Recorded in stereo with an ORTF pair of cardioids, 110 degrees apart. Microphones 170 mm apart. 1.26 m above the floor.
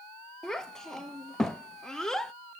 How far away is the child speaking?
About 0.7 m.